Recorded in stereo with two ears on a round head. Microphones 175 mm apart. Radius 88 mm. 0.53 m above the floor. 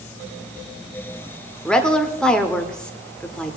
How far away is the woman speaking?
About 1.3 m.